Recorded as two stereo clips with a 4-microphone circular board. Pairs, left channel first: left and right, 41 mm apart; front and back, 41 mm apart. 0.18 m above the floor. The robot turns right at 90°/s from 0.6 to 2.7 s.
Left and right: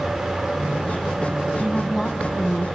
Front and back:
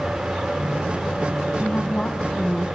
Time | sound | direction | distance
1.6 | a woman speaking | 10° right | 1.1 m